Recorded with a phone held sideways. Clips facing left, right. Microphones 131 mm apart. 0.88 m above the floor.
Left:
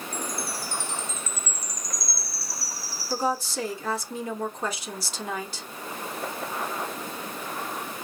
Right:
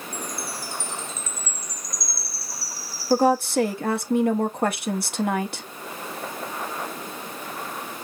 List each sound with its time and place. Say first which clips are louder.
0.1 s a chime: even; 75° left (ahead or behind), 1.8 m
3.1 s a woman speaking: right 9 dB; 60° right (ahead or behind), 0.9 m